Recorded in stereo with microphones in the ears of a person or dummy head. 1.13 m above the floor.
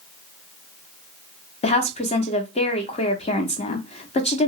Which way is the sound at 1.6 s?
35° left (ahead or behind).